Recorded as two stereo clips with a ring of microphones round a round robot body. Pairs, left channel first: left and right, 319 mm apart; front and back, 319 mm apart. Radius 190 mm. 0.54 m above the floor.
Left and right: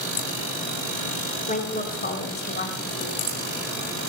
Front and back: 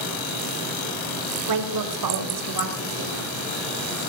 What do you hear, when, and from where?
1.5 s a woman speaking: 160° left, 1.9 m; by 3.2 s 150° left, 3 m